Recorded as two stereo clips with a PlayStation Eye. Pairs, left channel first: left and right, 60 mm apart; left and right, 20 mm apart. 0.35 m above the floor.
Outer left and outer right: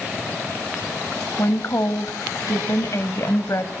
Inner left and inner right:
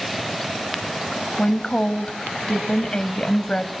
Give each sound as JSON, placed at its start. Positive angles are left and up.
{"t": 1.4, "sound": "a woman speaking", "side_deg": 55, "distance_m": 1.7}